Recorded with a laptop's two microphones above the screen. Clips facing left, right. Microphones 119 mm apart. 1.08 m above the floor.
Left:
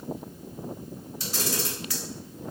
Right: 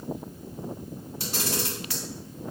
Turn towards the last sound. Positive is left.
turn(degrees=-65)  # may be behind; listen again after turning